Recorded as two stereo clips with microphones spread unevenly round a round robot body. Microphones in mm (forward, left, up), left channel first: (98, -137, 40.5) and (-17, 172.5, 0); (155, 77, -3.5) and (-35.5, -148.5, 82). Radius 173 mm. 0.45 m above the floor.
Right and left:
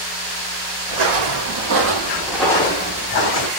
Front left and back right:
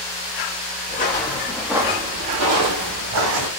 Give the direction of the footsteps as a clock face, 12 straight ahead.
8 o'clock.